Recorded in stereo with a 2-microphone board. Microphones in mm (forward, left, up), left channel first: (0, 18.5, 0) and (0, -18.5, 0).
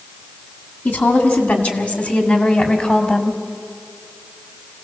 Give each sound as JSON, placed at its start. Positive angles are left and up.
{"t": 0.8, "sound": "a woman speaking", "side_deg": 55, "distance_m": 3.0}